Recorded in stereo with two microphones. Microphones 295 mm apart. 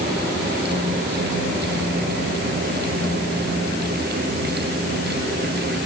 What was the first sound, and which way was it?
Only background noise.